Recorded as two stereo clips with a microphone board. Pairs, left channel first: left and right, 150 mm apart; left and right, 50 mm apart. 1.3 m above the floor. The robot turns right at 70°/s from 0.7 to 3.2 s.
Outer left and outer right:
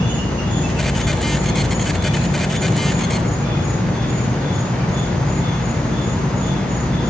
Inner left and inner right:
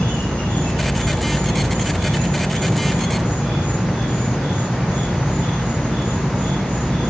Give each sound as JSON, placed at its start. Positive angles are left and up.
{"t": 0.0, "sound": "an insect", "azimuth_deg": 155, "distance_m": 1.7}